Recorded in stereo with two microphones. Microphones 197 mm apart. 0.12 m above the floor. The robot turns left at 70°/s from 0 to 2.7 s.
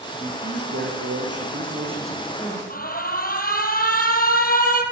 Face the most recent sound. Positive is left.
turn(degrees=45)  # may be behind; listen again after turning